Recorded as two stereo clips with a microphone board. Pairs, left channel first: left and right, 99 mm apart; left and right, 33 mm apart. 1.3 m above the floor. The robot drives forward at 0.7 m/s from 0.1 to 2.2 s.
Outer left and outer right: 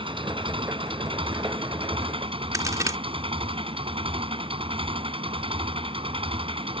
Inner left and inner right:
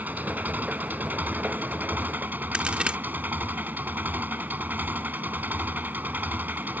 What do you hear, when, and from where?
0.0 s an engine running: 60° right (ahead or behind); by 6.8 s 65° right (ahead or behind)
2.5 s a crack: 35° right (ahead or behind)